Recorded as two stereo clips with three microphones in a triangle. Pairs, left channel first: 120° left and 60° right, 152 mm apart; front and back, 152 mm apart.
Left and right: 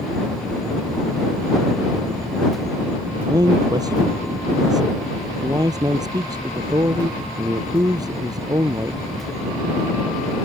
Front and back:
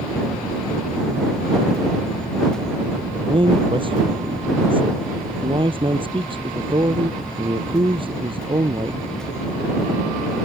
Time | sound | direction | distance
3.3 | a man speaking | 125° right | ?